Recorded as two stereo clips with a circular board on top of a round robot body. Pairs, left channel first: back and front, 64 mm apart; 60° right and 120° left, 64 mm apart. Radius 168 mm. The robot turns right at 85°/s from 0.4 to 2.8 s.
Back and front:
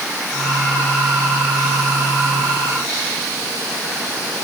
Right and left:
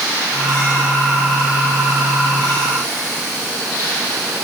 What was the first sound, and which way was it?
Only background noise.